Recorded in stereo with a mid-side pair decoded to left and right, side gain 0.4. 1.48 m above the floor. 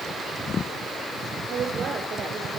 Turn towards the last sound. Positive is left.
turn(degrees=-60)